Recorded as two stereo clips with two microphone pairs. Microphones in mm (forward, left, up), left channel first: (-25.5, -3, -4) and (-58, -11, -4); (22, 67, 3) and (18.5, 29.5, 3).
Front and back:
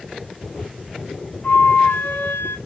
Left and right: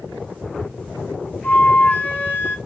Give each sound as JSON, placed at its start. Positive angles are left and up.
{"t": 1.4, "sound": "a flute", "azimuth_deg": 45, "distance_m": 0.8}